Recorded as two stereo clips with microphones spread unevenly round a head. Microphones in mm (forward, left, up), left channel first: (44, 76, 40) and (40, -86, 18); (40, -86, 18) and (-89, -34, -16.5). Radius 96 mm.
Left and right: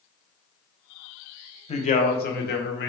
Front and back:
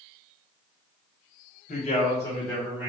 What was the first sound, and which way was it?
A man speaking, 35° left.